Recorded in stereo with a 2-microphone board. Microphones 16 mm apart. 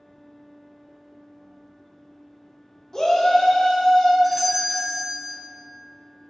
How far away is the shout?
About 1.0 m.